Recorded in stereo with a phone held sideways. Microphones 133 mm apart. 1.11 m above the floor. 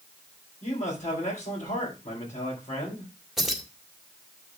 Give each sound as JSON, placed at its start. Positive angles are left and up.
{"t": 0.6, "sound": "a man speaking", "side_deg": 65, "distance_m": 4.5}
{"t": 3.4, "sound": "keys jangling", "side_deg": -5, "distance_m": 1.7}